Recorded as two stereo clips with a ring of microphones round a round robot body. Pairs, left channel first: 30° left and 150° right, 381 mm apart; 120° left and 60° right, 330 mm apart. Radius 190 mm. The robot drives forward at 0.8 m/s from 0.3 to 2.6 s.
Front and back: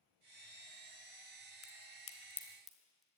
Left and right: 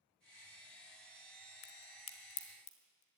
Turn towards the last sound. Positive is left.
turn(degrees=120)